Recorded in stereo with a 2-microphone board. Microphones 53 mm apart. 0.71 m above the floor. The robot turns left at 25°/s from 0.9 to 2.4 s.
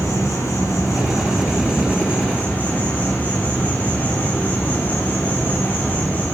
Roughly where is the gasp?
I don't hear a gasp.